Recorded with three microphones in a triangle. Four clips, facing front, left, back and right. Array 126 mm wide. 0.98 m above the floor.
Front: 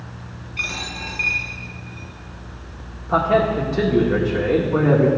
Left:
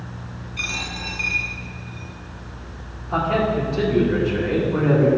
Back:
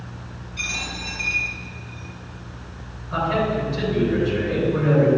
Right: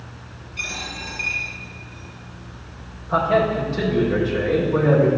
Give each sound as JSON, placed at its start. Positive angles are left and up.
{"t": 0.6, "sound": "a dropped coin", "azimuth_deg": 35, "distance_m": 2.5}
{"t": 3.1, "sound": "a man speaking", "azimuth_deg": 5, "distance_m": 1.8}